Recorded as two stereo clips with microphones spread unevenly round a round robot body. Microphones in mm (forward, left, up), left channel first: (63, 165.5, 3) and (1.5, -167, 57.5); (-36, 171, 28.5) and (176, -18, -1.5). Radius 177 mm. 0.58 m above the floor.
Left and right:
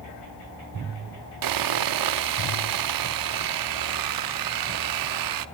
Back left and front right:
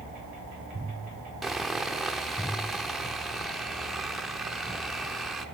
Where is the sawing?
130° right, 0.9 m.